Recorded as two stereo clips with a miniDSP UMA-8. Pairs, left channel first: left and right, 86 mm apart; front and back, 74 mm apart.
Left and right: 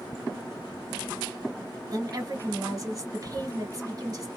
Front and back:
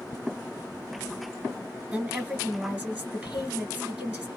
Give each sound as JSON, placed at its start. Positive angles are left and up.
{"t": 1.9, "sound": "a woman speaking", "azimuth_deg": -120, "distance_m": 1.9}